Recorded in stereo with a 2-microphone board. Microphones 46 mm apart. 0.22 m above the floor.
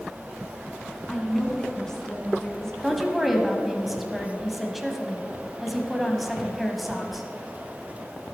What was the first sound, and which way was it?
A woman speaking, 10° left (ahead or behind).